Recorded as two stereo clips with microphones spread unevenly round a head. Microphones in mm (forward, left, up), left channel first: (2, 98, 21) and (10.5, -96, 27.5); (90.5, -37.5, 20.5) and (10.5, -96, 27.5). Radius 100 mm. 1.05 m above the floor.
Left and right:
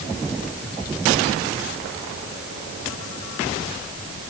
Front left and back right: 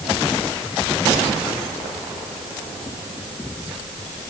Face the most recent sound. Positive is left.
No sound to turn to.